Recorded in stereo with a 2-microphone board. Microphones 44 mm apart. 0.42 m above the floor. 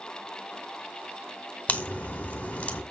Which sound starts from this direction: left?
A crack, at 1.7 s.